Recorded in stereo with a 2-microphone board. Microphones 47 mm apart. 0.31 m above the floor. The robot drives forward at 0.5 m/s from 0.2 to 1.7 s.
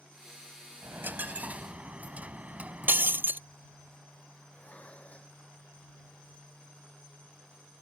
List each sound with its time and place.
0.8 s a dropped coin: 50° right (ahead or behind); by 3.4 s 35° right (ahead or behind)
2.9 s breaking glass: 50° right (ahead or behind)
4.5 s dishes clattering: 25° left (ahead or behind)